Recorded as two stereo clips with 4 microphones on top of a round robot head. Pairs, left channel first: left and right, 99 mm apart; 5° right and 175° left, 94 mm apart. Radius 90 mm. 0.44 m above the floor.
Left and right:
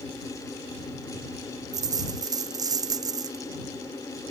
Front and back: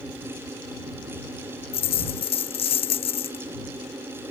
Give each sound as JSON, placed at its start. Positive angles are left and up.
{"t": 1.7, "sound": "a dropped coin", "azimuth_deg": -30}